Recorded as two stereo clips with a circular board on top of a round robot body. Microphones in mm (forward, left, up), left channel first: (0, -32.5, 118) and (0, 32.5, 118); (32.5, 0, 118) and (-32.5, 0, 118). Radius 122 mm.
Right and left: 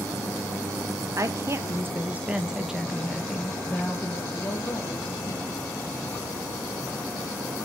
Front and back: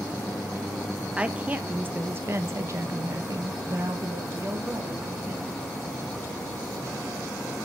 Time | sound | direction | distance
1.2 | a woman speaking | 110° left | 1.3 m